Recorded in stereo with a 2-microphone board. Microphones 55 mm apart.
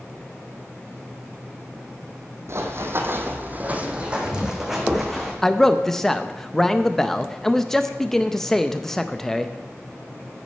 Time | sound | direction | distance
2.5 | running footsteps | 55° right (ahead or behind) | 1.6 m
5.4 | a man speaking | 10° left (ahead or behind) | 0.5 m